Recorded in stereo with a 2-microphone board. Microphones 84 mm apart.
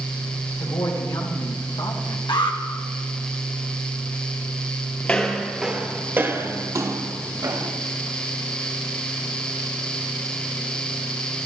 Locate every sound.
0.6 s a woman speaking: 70° left (ahead or behind), 3 m; by 2.2 s 85° left, 2 m
2.3 s an alarm: 65° left (ahead or behind), 1.8 m
5.0 s footsteps: 15° left (ahead or behind), 1.7 m; by 7.7 s 55° right (ahead or behind), 3 m